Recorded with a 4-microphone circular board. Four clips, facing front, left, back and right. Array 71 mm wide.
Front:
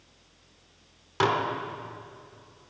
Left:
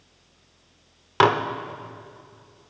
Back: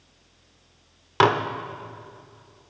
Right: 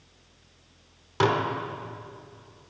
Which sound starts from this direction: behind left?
Dishes clattering, at 1.2 s.